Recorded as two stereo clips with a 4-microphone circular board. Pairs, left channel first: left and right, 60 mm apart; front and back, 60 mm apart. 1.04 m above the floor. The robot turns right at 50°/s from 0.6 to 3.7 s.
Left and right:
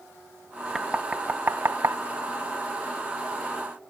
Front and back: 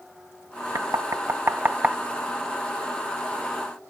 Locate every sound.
0.8 s knocking: 175° right; by 2.0 s 115° right